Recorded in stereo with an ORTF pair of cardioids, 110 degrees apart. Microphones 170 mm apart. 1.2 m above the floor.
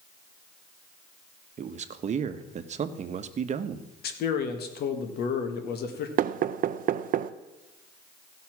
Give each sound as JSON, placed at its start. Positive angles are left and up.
{"t": 1.6, "sound": "a man speaking", "azimuth_deg": -40, "distance_m": 1.1}
{"t": 4.0, "sound": "a man speaking", "azimuth_deg": 65, "distance_m": 1.8}
{"t": 6.2, "sound": "knocking", "azimuth_deg": -50, "distance_m": 0.6}